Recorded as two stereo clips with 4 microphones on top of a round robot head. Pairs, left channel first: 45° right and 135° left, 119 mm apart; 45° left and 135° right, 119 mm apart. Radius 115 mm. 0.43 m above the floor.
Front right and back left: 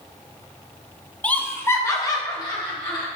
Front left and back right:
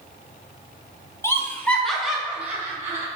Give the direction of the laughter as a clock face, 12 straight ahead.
11 o'clock.